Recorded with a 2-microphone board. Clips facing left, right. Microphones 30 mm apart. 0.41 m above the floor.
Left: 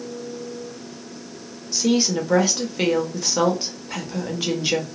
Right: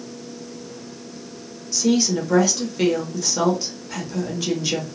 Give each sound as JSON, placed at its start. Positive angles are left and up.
{"t": 1.7, "sound": "a woman speaking", "side_deg": 15, "distance_m": 0.9}